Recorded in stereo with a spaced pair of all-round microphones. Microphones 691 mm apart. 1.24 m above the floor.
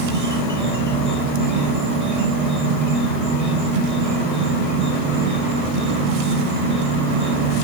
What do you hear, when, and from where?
0.0 s an insect: 25° right (ahead or behind), 6.5 m